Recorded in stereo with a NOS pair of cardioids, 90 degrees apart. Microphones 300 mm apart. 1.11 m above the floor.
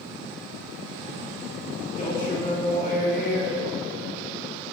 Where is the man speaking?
25° left, 3 m.